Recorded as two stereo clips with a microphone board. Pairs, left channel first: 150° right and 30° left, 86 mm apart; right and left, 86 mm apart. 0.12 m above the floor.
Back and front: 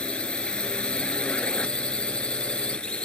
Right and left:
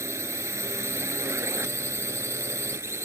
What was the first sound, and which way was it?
A drone, 135° left.